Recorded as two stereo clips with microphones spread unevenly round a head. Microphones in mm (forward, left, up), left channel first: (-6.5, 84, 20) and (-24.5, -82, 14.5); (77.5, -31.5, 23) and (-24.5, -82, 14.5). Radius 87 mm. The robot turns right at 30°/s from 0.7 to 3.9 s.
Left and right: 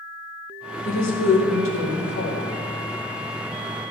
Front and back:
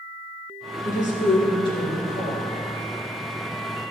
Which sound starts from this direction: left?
A woman speaking, at 0.8 s.